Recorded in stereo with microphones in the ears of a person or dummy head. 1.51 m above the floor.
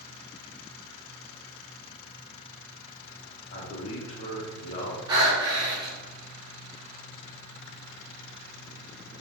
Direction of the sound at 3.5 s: 35° left (ahead or behind).